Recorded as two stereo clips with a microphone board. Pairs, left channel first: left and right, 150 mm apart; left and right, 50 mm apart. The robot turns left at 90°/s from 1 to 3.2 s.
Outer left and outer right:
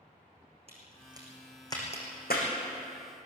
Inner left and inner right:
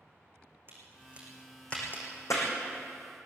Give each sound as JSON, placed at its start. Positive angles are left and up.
{"t": 0.7, "sound": "a crack", "side_deg": -40, "distance_m": 5.5}